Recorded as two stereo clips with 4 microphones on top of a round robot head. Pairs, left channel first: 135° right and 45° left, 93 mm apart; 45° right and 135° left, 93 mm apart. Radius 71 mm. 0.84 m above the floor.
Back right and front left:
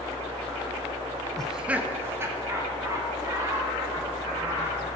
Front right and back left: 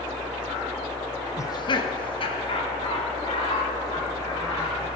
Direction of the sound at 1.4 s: 60° right.